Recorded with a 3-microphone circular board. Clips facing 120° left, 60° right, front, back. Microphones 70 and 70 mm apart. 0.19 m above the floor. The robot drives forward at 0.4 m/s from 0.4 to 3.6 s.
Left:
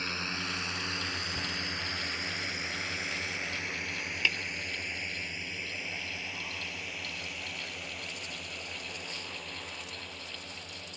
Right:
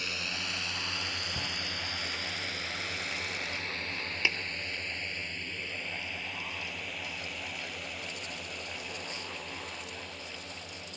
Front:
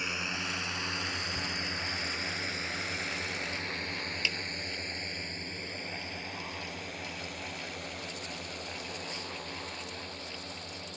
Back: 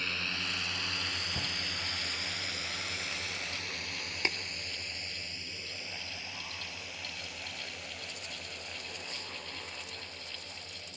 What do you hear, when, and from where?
0.0 s a drone: 70° left; by 11.0 s 30° left
1.4 s a shout: 130° right
4.2 s tapping: 135° right